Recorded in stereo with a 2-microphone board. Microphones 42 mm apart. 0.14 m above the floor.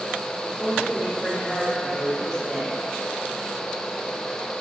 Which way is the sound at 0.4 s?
15° left (ahead or behind).